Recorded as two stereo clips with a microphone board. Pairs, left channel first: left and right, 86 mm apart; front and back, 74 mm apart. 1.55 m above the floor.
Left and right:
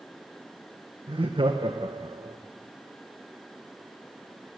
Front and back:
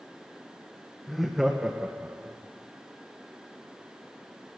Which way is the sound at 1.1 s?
90° right.